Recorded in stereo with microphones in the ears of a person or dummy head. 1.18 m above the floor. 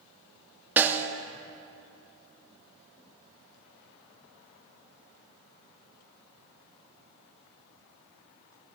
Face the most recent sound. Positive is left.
turn(degrees=-10)  # may be behind; listen again after turning